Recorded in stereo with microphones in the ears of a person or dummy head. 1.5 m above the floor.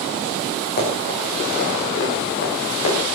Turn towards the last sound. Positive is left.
turn(degrees=80)